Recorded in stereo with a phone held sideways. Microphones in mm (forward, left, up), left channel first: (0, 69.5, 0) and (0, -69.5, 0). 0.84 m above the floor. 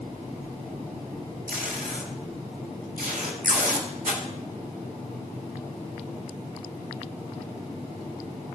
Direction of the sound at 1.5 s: 90° right.